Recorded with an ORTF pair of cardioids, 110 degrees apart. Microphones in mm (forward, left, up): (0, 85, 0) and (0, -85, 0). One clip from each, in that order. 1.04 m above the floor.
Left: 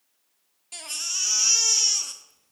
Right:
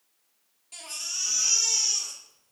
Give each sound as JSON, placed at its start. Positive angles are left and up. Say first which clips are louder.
{"t": 0.7, "sound": "a baby crying", "louder": "left 4 dB", "azimuth_deg": 30, "distance_m": 0.7}